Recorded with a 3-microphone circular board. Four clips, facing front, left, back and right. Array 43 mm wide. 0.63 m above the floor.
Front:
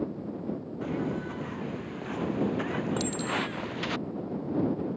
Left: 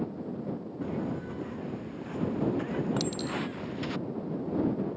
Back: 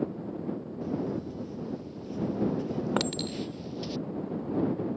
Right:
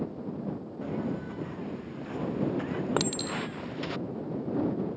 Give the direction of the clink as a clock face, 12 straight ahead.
4 o'clock.